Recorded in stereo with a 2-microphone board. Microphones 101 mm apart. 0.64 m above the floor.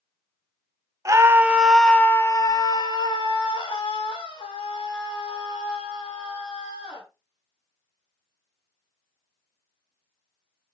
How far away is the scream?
About 0.9 m.